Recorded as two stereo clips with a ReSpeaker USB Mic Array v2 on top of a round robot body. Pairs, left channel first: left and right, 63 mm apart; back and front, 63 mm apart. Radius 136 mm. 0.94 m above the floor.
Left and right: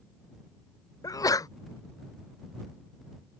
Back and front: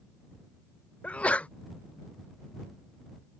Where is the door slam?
I don't hear a door slam.